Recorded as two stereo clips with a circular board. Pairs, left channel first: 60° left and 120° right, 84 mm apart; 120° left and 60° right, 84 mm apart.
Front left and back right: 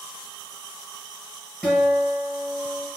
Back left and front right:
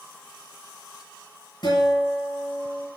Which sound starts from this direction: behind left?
A guitar, at 1.6 s.